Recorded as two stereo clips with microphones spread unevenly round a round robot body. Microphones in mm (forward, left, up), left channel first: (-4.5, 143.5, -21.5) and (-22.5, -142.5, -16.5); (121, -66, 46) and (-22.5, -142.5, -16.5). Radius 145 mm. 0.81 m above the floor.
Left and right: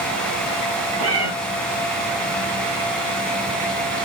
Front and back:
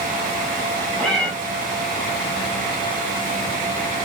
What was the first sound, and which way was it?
A cat meowing, 55° right.